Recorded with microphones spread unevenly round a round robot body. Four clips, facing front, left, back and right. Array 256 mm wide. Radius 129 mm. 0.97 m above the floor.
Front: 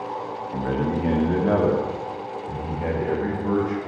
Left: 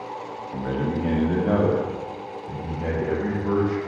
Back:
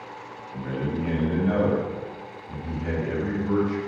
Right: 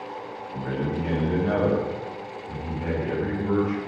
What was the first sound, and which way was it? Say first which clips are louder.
A man speaking: left 2 dB, front 4 dB; 25° left.